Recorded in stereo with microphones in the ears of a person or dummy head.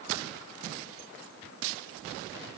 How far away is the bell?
No bell in this recording.